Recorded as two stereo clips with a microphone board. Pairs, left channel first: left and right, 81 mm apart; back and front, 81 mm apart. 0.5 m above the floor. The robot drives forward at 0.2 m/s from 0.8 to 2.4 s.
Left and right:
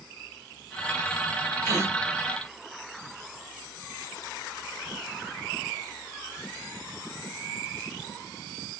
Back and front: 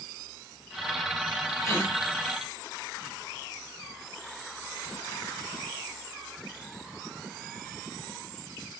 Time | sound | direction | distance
1.6 | a gasp | 130° right | 0.8 m